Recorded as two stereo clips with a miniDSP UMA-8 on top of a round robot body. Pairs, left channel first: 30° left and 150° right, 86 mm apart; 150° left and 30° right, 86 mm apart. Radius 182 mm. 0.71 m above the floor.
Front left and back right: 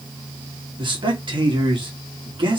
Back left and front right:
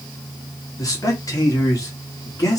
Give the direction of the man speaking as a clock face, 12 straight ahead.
5 o'clock.